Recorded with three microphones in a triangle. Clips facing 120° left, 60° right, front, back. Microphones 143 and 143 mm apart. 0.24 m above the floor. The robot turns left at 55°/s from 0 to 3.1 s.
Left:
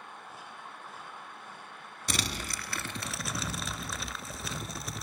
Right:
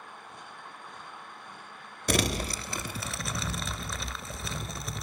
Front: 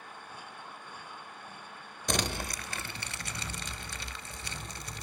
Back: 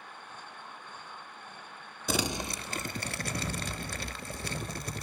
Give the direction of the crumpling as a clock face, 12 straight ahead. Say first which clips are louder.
Right 8 dB, back 1 dB; 3 o'clock.